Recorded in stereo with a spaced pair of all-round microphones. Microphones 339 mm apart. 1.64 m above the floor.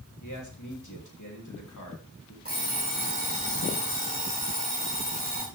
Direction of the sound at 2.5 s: 25° right (ahead or behind).